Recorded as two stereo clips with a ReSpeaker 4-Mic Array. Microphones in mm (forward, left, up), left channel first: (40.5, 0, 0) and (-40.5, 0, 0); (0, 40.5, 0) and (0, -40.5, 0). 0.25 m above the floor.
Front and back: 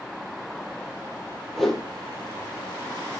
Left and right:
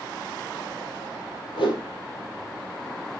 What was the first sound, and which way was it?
A whoosh, 90° left.